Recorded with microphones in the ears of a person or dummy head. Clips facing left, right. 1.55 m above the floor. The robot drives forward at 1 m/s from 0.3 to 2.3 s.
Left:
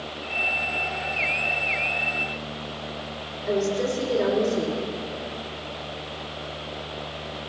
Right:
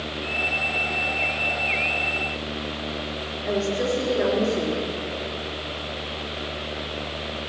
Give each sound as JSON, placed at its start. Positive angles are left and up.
{"t": 3.5, "sound": "a woman speaking", "side_deg": -25, "distance_m": 3.5}